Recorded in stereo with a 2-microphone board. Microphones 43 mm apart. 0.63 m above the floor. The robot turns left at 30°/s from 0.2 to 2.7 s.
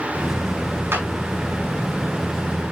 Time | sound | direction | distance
0.9 | a clap | 70° right (ahead or behind) | 5 m